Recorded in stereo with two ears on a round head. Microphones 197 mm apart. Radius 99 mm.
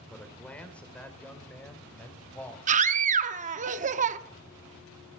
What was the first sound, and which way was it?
A man speaking, 5° left (ahead or behind).